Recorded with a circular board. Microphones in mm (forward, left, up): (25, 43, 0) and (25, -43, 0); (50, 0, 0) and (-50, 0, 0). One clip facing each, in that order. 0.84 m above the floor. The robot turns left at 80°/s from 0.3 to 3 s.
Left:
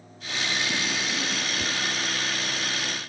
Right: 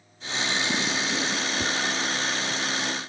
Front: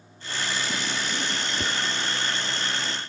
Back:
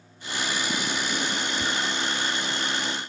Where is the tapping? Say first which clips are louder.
Right 3 dB, even; 30° right, 0.6 m; by 1.8 s 45° right, 0.6 m.